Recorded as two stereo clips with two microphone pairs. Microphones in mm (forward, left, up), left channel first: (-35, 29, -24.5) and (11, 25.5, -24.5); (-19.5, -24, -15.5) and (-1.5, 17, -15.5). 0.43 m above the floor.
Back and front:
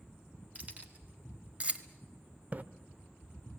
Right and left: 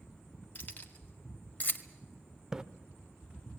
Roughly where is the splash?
Ahead.